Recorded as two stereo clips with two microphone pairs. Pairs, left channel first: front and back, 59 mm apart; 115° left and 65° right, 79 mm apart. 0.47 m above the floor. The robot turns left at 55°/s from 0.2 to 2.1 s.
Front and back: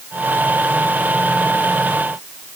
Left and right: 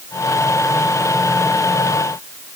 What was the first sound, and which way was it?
Only background noise.